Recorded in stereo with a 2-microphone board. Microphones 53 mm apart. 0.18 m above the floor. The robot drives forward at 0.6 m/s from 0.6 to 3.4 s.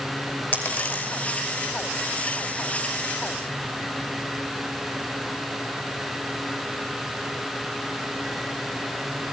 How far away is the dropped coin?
About 3 m.